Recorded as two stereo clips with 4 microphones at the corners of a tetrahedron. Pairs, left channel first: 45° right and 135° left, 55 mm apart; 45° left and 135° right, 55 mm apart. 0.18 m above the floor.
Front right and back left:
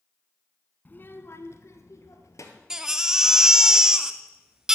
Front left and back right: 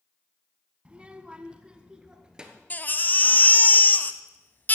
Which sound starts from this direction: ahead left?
A baby crying, at 2.7 s.